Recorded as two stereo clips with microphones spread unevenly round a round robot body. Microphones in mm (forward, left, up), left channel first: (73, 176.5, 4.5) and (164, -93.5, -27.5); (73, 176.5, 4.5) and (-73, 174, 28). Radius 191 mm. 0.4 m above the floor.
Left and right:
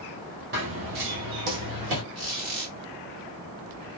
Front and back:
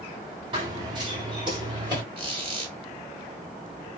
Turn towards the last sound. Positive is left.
turn(degrees=-115)